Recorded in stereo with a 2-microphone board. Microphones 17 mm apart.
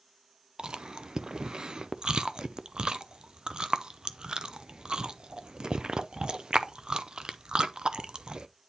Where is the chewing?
55° right (ahead or behind), 0.5 m.